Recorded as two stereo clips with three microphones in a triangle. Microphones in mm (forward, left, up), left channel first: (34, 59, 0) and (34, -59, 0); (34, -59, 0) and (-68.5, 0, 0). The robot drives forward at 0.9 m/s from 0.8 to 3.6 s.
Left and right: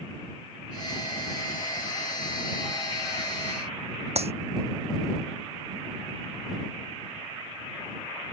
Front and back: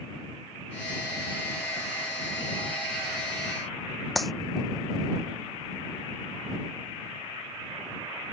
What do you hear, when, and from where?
4.2 s a clap: 120° right